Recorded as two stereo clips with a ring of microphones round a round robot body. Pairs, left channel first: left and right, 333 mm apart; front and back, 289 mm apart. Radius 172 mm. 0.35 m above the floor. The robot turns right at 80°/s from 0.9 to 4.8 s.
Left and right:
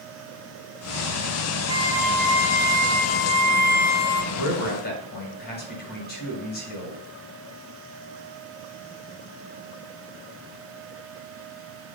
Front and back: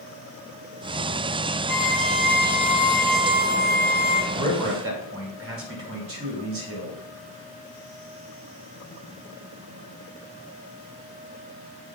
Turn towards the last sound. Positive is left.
turn(degrees=150)